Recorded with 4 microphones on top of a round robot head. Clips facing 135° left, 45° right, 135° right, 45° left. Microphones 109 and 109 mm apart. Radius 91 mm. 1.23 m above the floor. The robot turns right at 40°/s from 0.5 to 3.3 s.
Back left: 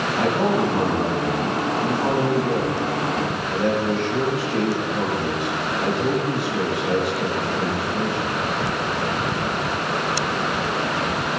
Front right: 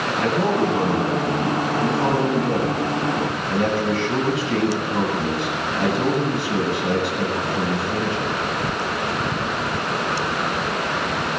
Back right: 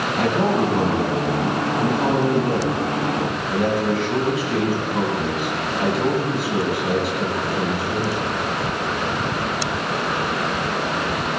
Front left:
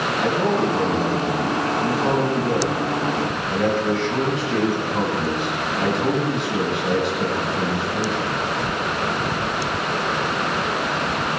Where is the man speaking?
165° right, 8.5 m; by 8.3 s 50° right, 8.5 m.